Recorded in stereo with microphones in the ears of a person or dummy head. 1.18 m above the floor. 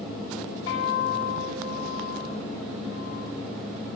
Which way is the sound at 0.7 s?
70° left (ahead or behind).